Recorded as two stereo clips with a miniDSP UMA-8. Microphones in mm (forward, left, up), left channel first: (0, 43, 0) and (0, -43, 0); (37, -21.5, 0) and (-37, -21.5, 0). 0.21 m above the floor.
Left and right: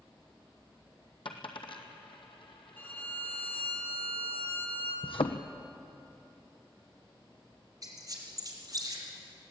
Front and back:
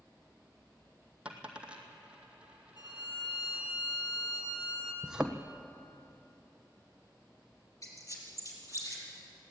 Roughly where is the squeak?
Ahead right.